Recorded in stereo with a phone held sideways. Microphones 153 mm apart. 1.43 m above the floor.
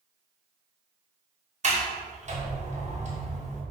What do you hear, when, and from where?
1.6 s a sliding door: 50° right (ahead or behind), 2.5 m